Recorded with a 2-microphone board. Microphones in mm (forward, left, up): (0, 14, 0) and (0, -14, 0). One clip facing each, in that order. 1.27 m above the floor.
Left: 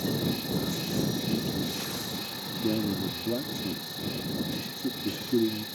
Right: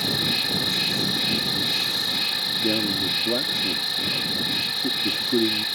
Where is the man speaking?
65° right (ahead or behind).